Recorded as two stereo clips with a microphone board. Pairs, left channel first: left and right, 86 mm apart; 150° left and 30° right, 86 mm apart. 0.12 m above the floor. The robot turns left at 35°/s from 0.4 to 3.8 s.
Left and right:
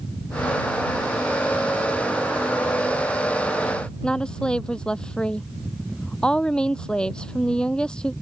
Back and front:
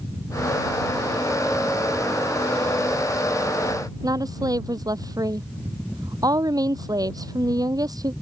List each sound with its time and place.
4.0 s a woman speaking: 10° left